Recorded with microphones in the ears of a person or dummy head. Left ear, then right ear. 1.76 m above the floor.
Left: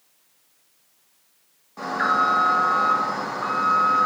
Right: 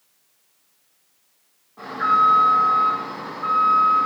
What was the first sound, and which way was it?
An alarm, 65° left (ahead or behind).